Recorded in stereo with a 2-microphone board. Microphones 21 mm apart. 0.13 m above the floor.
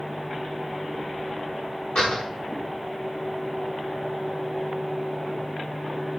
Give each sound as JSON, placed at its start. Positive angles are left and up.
{"t": 1.9, "sound": "a door slam", "side_deg": 35, "distance_m": 7.5}